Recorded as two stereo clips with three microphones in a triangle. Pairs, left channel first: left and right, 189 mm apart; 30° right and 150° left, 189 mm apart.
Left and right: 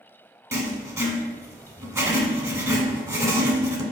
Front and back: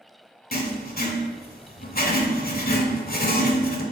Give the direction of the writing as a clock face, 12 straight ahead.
1 o'clock.